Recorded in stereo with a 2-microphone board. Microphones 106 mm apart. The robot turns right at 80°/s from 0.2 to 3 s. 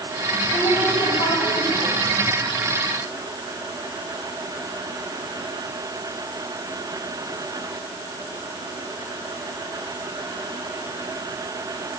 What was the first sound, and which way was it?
A woman speaking, 35° left.